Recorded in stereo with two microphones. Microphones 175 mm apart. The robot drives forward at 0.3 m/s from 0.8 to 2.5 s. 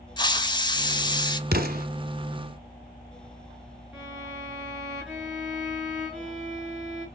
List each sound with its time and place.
0.2 s a hiss: 25° left (ahead or behind), 0.6 m
1.5 s an explosion: 60° right (ahead or behind), 0.9 m
3.9 s a violin: 5° right (ahead or behind), 3.5 m